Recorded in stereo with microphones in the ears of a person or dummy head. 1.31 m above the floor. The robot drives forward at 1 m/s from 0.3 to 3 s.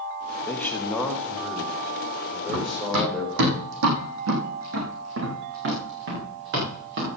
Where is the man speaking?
15° left (ahead or behind), 1.3 m; by 3.5 s 5° left (ahead or behind), 4 m.